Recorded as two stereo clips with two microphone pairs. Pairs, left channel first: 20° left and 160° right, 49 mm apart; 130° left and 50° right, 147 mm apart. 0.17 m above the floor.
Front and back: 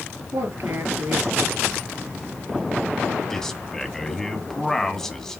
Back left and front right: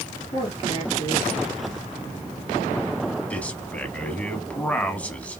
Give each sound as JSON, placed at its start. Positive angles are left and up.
{"t": 0.3, "sound": "a man speaking", "azimuth_deg": 180, "distance_m": 2.5}
{"t": 3.3, "sound": "a man speaking", "azimuth_deg": 70, "distance_m": 1.0}